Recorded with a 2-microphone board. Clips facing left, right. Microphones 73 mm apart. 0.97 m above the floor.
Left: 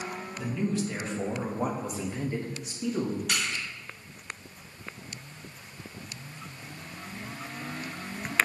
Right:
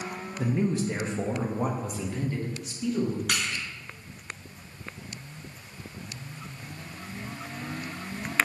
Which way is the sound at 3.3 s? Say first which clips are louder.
Right 1 dB; 80° right.